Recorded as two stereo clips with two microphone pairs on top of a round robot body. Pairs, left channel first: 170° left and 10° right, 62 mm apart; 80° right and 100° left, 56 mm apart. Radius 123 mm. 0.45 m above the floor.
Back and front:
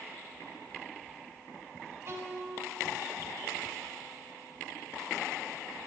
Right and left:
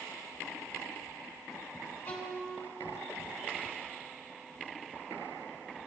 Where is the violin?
60° right, 1.5 m.